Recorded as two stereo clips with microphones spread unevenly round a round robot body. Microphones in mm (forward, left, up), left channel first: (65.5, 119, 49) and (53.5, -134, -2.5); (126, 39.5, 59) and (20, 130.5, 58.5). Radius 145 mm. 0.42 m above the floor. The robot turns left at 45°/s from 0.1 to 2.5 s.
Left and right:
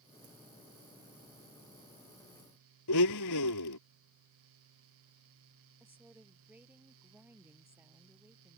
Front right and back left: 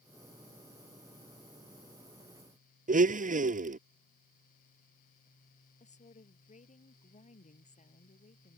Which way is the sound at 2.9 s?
115° left.